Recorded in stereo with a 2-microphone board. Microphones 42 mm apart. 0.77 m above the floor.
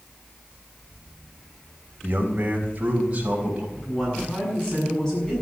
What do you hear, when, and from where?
2.0 s a man speaking: 45° right (ahead or behind), 3.5 m; by 3.7 s 30° right (ahead or behind), 5 m
3.8 s a woman speaking: 15° left (ahead or behind), 7.5 m